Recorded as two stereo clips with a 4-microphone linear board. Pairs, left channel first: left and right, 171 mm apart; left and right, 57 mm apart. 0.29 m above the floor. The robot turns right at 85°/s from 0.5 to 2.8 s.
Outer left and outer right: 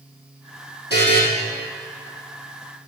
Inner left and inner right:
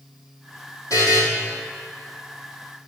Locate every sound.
0.9 s a buzzer: 75° left (ahead or behind), 2.5 m; by 1.2 s 80° left, 2.5 m